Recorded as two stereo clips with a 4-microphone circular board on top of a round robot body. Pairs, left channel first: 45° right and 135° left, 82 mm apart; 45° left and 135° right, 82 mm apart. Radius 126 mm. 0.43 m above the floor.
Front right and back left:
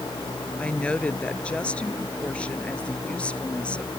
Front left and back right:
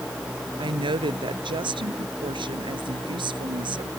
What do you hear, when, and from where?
0.6 s a woman speaking: 120° right